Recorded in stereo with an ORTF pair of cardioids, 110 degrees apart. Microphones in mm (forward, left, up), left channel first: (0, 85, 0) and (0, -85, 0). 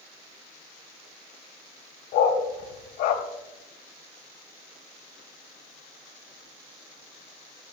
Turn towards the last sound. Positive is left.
turn(degrees=70)